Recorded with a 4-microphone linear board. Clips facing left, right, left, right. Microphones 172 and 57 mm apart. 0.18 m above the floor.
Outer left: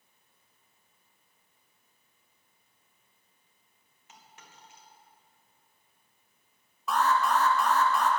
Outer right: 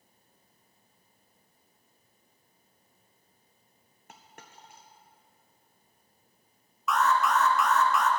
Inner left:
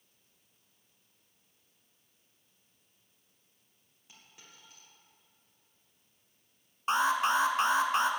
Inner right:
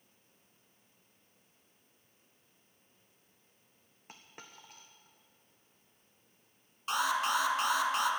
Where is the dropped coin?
55° right (ahead or behind), 1.6 m.